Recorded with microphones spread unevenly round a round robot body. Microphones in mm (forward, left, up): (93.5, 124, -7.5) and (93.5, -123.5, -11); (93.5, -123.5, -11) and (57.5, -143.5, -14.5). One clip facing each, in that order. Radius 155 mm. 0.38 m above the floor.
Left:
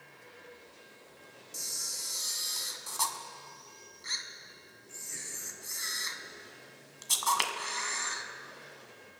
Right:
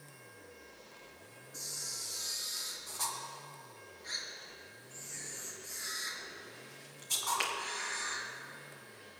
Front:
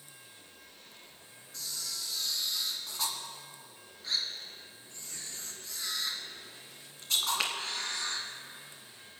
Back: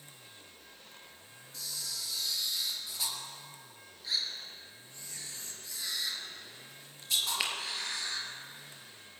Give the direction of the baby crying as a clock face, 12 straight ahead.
No baby crying in this recording.